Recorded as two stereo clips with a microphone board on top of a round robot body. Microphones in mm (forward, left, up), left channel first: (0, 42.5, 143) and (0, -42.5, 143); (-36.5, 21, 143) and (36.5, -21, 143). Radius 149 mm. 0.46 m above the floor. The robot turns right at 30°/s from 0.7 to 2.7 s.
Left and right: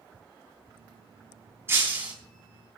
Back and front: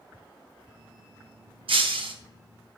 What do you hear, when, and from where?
1.7 s breaking glass: 30° right, 3.5 m; by 2.1 s 15° right, 3.5 m